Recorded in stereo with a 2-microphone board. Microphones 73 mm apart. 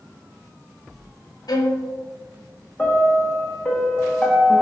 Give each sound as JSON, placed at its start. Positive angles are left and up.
{"t": 1.5, "sound": "a violin", "side_deg": 65, "distance_m": 0.6}
{"t": 2.8, "sound": "a piano", "side_deg": 10, "distance_m": 0.7}